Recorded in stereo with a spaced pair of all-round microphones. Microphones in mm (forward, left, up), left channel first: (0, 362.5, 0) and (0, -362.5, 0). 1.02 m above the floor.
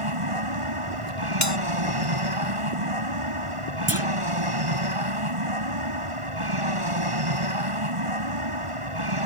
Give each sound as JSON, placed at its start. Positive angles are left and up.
{"t": 0.0, "sound": "an aircraft", "side_deg": -45}
{"t": 1.4, "sound": "a bell", "side_deg": 25}
{"t": 3.9, "sound": "a clunk", "side_deg": -20}